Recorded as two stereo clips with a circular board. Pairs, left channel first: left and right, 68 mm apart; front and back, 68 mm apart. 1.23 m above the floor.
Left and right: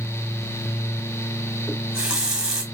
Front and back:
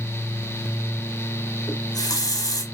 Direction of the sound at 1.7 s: 10° right.